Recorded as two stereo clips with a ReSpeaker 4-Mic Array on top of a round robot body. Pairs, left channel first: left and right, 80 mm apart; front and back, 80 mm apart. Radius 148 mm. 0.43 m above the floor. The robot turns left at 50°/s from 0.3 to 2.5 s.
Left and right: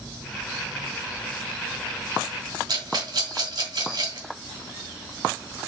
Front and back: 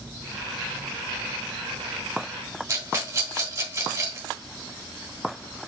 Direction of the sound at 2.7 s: 120° right.